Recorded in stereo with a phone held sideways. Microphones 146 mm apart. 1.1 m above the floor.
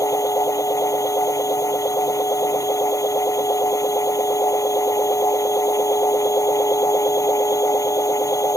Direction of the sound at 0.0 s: 25° left (ahead or behind).